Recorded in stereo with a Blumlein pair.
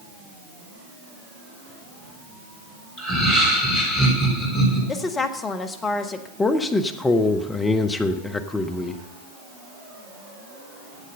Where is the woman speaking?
20° left, 1.2 m.